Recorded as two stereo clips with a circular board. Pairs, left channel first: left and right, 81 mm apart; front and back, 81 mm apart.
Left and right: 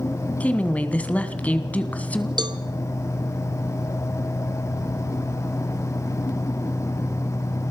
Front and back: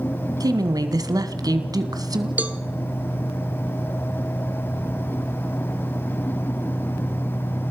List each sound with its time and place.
0.4 s a woman speaking: 155° left, 2.0 m
2.4 s a cowbell: 110° right, 1.2 m